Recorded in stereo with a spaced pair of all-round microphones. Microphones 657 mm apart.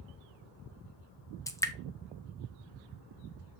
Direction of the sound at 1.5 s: 5° left (ahead or behind).